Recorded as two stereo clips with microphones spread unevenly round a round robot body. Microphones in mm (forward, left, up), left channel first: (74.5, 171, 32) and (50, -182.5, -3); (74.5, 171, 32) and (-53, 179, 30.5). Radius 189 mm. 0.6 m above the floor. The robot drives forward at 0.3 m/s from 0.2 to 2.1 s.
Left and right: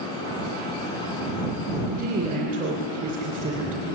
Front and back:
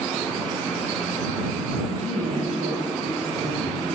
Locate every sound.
1.9 s a woman speaking: 160° right, 2.5 m